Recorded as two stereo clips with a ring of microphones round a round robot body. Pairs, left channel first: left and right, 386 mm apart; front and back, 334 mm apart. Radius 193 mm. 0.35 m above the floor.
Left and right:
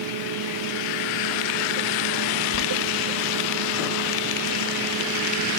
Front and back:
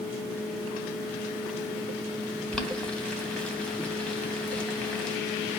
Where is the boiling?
85° left, 2.5 m.